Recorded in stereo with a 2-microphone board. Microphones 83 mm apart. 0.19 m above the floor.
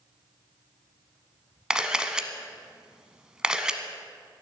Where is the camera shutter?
10° right (ahead or behind), 0.7 m.